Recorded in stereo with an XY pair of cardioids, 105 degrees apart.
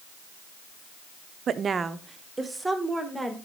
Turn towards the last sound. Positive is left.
turn(degrees=-5)